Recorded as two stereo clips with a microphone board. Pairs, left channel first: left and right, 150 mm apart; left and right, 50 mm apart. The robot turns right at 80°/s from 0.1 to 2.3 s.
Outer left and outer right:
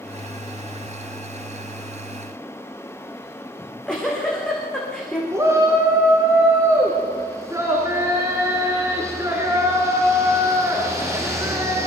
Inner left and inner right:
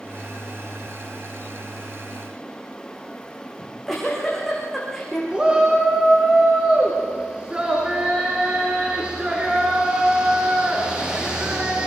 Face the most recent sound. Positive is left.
turn(degrees=-20)  # may be behind; listen again after turning